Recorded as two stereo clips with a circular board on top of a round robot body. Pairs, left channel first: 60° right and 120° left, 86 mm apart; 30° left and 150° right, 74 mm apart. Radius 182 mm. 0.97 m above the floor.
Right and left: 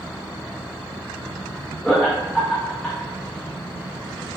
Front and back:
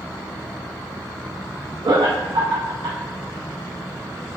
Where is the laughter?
145° right, 0.6 m.